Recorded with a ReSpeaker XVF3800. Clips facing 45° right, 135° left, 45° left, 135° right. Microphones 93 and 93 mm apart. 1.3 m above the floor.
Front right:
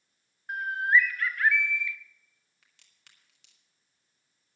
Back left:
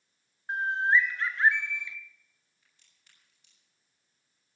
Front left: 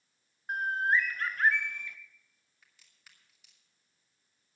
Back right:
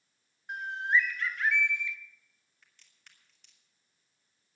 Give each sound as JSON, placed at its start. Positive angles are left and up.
{"t": 0.5, "sound": "a bird", "azimuth_deg": 75, "distance_m": 0.8}
{"t": 2.6, "sound": "a crack", "azimuth_deg": -40, "distance_m": 2.5}